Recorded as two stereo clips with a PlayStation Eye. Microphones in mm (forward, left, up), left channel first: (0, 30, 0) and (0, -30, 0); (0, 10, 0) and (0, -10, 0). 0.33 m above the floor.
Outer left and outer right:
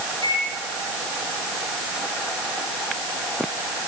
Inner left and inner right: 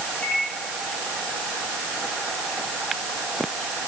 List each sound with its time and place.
0.2 s a microwave: 80° left, 9 m